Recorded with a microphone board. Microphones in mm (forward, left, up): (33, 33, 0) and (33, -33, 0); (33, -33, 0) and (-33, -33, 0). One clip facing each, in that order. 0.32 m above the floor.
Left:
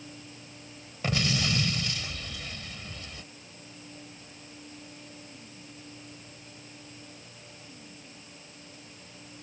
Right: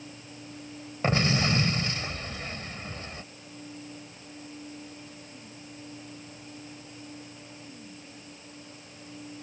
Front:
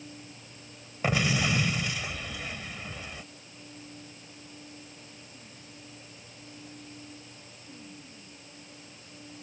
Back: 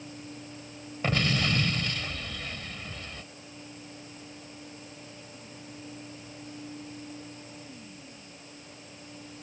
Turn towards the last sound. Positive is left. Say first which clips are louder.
# right 4 dB, front 1 dB
turn(degrees=-70)